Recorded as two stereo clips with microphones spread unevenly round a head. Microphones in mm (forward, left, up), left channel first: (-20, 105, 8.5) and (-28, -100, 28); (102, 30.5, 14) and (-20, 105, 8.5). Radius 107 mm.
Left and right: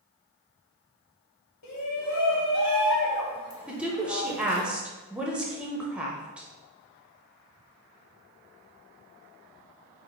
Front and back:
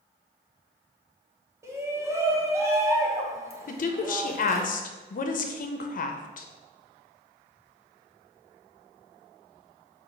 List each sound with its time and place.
1.6 s a shout: 75° left, 1.0 m
3.7 s a woman speaking: 10° right, 0.5 m